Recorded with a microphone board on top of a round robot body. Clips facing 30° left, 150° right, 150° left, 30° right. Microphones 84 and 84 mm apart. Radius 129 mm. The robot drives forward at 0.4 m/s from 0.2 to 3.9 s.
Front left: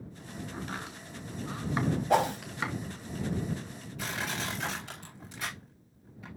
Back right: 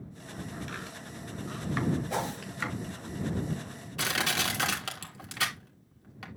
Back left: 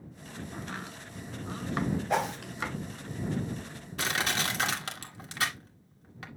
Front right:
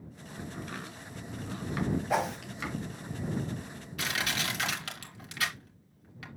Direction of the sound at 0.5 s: 85° left.